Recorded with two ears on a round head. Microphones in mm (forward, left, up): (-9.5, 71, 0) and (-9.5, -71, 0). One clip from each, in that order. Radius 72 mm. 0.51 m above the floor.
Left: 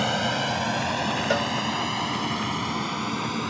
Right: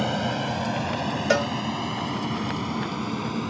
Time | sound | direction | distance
0.0 | an aircraft | 45° left (ahead or behind) | ?
1.3 | a cowbell | 20° right (ahead or behind) | ?